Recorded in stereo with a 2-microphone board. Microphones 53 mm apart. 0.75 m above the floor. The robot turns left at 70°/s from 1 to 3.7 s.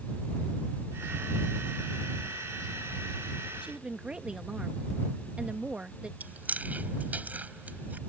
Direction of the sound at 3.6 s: 20° right (ahead or behind).